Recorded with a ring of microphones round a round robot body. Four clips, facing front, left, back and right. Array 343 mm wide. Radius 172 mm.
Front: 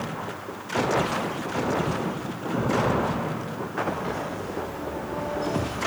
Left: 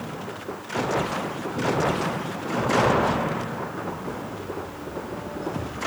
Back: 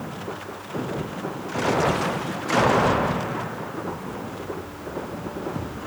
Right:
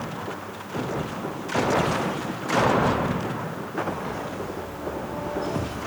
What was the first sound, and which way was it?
Only background noise.